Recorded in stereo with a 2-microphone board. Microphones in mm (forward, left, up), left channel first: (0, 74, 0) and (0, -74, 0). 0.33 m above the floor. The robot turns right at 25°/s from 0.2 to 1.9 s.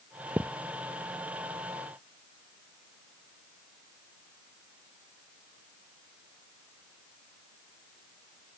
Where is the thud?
10° right (ahead or behind); by 0.5 s 15° right (ahead or behind).